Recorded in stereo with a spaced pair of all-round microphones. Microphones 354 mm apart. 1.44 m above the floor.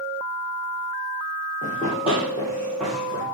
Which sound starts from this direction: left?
Running footsteps, at 1.6 s.